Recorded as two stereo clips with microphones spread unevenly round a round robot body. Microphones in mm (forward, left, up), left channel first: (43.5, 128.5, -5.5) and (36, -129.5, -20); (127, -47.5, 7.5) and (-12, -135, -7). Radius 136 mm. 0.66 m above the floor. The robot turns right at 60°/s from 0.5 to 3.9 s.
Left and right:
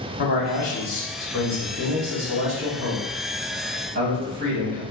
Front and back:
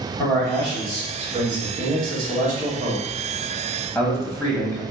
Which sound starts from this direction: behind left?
A man speaking, at 0.2 s.